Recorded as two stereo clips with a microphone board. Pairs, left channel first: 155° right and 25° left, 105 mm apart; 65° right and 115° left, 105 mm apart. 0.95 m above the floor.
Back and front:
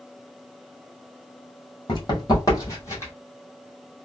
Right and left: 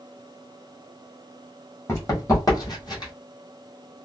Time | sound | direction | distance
1.9 | running footsteps | 125° right | 1.7 m